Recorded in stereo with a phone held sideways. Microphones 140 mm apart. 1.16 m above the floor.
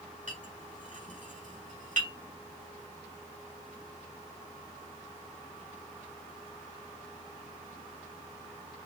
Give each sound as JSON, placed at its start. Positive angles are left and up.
{"t": 0.3, "sound": "a clink", "side_deg": -60, "distance_m": 1.8}